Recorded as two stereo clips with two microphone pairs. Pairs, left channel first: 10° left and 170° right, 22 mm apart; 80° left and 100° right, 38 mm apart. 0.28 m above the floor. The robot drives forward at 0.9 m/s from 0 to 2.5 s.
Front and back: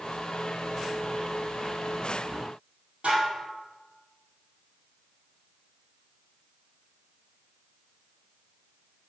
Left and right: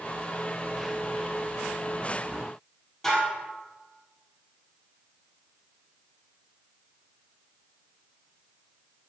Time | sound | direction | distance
3.0 | dishes clattering | 165° left | 5 m